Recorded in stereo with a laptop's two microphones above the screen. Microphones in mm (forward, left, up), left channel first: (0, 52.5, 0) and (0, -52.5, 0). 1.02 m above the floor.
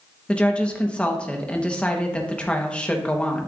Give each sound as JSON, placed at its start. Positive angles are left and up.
{"t": 0.3, "sound": "a woman speaking", "side_deg": 10, "distance_m": 1.0}